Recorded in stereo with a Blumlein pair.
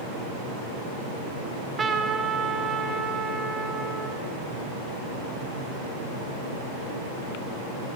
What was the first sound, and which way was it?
A trumpet, 15° right.